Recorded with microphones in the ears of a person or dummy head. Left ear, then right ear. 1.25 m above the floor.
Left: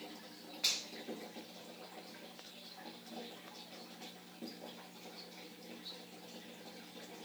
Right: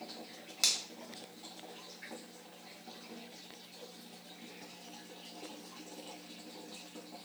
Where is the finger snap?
80° right, 1.5 m.